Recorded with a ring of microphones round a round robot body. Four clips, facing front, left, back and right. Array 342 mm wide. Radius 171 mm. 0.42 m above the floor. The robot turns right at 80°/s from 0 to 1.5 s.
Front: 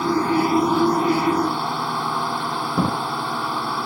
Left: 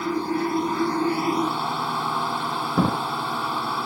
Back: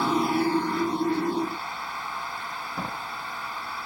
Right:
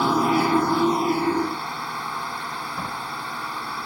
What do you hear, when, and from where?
0.0 s a drone: 95° right; by 3.9 s 25° left
2.8 s a drawer: 50° left